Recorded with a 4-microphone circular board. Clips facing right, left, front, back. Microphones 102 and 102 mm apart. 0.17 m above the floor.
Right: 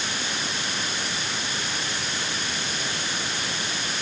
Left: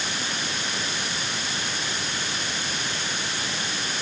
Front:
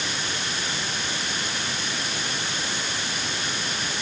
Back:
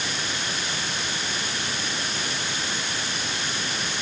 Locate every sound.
Only background noise.